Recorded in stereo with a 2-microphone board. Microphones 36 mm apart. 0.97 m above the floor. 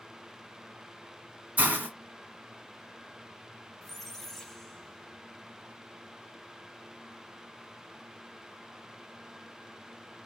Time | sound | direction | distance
1.6 | a hiss | 45° right (ahead or behind) | 1.8 m
3.8 | a squeak | 10° left (ahead or behind) | 0.6 m